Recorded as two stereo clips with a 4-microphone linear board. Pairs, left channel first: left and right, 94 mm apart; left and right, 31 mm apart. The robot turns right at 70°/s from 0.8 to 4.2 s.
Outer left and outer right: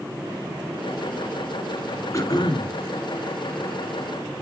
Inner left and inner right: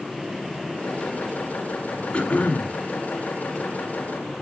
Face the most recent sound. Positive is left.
turn(degrees=180)